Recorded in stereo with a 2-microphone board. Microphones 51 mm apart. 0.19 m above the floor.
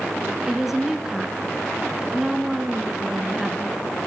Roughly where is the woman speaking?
Centre.